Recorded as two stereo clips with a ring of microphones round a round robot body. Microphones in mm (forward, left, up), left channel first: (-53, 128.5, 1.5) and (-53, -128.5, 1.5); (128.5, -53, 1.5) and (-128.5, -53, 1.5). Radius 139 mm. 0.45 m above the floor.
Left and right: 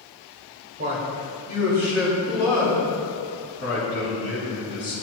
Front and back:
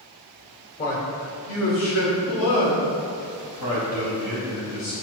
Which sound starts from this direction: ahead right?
A man speaking, at 0.8 s.